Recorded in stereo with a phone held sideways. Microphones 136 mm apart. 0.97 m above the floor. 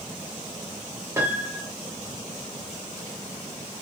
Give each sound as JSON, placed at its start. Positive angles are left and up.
{"t": 1.2, "sound": "a piano", "side_deg": -20, "distance_m": 0.7}